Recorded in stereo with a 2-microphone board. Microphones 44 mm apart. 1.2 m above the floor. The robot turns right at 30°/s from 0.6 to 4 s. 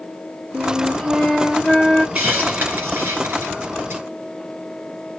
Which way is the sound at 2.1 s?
35° right (ahead or behind).